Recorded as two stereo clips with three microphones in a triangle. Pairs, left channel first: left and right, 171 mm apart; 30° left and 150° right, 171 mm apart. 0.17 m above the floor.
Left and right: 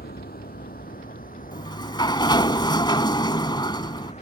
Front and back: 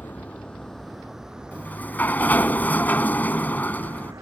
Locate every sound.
0.0 s a vehicle: 110° left; by 4.2 s 140° left
1.5 s a sliding door: 95° left